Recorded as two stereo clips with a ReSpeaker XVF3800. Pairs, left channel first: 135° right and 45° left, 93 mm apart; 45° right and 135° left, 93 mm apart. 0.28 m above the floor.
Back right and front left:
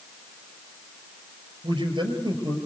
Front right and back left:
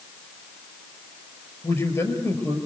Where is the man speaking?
10° left, 5 m.